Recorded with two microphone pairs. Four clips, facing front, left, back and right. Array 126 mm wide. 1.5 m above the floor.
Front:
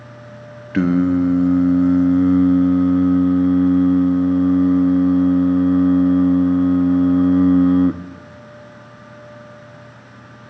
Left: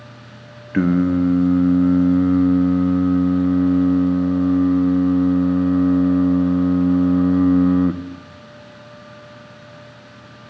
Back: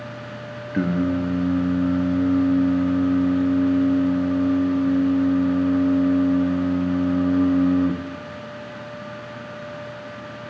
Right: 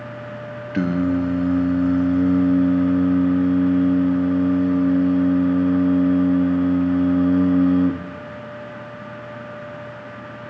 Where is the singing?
40° left, 0.6 m.